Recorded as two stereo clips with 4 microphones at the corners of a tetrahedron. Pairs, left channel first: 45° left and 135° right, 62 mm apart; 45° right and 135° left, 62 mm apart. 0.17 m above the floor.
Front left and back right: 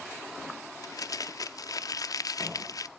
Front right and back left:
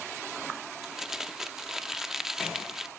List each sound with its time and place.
0.8 s crumpling: 55° left, 0.6 m